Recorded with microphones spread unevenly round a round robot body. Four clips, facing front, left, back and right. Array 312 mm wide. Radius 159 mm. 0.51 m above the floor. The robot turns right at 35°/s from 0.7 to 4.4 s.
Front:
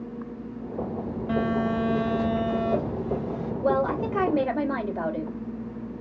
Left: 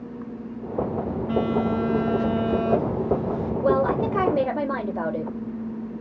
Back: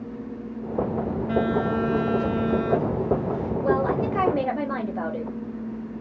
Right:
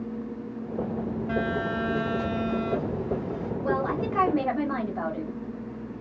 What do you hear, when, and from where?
1.3 s a phone buzzing: 25° right, 2.5 m; by 3.5 s 55° left, 2.5 m
3.6 s a woman speaking: 65° left, 2 m; by 5.3 s 95° left, 2 m